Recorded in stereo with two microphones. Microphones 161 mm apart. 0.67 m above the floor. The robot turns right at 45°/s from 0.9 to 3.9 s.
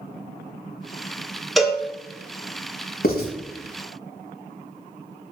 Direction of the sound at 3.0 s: 65° left (ahead or behind).